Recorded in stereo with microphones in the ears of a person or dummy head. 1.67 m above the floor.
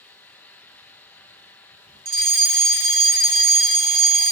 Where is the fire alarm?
50° right (ahead or behind), 1.5 m.